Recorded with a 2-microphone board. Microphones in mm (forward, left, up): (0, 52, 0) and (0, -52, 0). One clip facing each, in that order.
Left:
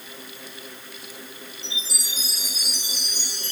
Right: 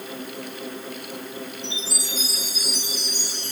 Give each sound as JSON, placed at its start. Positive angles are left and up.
{"t": 1.6, "sound": "a chime", "side_deg": 75, "distance_m": 7.0}